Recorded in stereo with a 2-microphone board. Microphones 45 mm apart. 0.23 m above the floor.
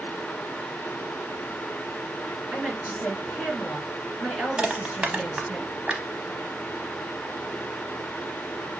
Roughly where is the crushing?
Right.